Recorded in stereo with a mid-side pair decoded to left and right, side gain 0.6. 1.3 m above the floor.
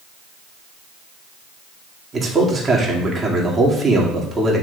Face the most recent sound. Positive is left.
turn(degrees=-25)